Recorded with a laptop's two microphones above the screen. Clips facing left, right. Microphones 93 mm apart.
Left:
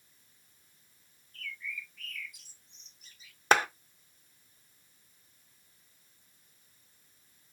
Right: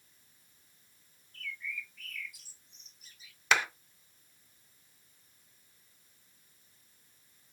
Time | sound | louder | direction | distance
1.3 | a bird | even | 5° right (ahead or behind) | 0.9 m
3.5 | a clap | left 4 dB | 40° left (ahead or behind) | 0.9 m